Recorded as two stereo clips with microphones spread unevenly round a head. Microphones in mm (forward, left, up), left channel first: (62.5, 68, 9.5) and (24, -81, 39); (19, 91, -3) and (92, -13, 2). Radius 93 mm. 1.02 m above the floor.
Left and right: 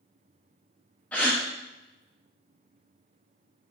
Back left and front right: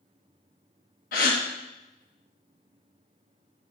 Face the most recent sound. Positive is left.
turn(degrees=155)